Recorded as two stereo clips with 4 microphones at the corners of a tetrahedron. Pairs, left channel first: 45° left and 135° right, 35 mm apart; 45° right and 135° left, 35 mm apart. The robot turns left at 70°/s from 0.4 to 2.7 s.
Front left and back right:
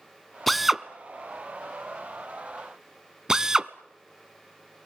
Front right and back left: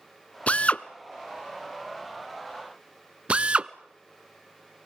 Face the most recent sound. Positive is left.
turn(degrees=165)